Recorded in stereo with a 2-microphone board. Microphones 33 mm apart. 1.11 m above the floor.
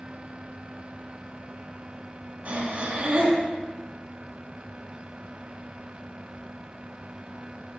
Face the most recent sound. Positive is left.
turn(degrees=-50)  # may be behind; listen again after turning